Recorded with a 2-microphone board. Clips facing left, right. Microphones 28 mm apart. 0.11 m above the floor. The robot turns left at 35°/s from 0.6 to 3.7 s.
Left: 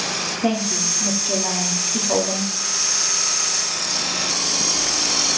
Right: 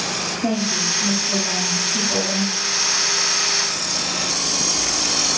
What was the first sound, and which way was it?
A woman speaking, 140° left.